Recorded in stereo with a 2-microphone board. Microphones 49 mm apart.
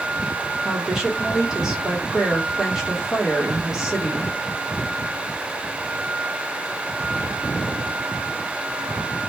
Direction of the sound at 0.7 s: 15° right (ahead or behind).